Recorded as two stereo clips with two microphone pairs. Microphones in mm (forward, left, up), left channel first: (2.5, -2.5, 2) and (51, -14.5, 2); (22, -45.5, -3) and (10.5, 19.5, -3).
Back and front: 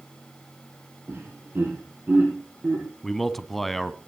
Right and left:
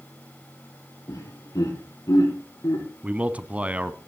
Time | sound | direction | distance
1.1 | laughter | 55° right | 5.5 m
3.0 | a man speaking | 85° left | 1.0 m